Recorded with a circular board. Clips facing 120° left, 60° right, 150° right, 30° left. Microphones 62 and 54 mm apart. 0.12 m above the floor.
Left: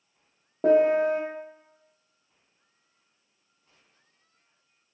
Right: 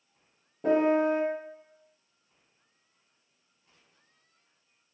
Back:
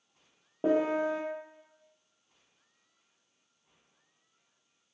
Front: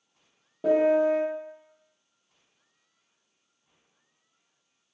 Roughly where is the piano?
Behind left.